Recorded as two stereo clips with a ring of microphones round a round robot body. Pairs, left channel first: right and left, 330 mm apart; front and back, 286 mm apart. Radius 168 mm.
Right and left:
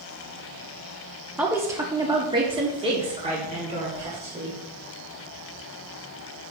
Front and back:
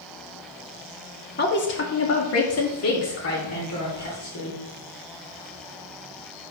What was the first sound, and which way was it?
A woman speaking, 10° left.